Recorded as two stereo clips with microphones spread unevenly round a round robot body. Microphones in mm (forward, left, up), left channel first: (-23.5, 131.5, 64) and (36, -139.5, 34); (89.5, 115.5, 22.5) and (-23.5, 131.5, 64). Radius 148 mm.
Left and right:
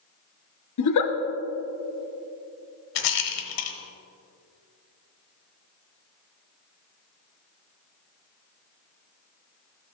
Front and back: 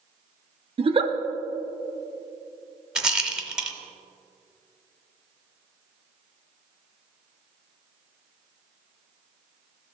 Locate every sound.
0.8 s a giggle: 120° left, 0.8 m
3.0 s a rattle: 90° left, 0.9 m